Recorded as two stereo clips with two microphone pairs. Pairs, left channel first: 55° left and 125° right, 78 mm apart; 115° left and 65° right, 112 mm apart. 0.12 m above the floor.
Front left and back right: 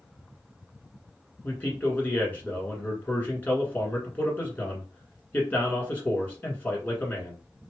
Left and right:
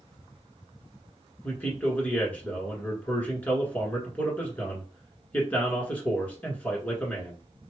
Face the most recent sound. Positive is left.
turn(degrees=75)